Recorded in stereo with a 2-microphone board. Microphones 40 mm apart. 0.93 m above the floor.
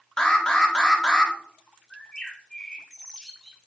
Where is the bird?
15° left (ahead or behind), 1.0 m.